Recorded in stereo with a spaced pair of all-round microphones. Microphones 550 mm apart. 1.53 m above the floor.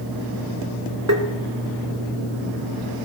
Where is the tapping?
25° right (ahead or behind), 1.9 m.